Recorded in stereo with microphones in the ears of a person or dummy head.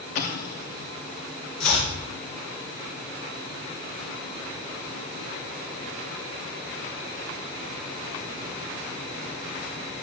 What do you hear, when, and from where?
0.1 s an explosion: 45° left (ahead or behind), 0.6 m
1.6 s chopping: 80° left, 3 m